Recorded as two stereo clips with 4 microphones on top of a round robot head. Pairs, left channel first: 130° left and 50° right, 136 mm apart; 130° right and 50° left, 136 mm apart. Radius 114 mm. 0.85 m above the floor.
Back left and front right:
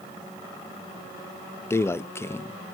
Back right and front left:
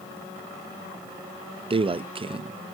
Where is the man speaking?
65° left, 0.7 m.